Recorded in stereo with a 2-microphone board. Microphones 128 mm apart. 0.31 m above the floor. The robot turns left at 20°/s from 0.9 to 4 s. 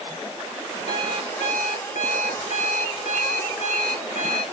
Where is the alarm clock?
125° left, 2.5 m; by 4.4 s 60° left, 2.5 m.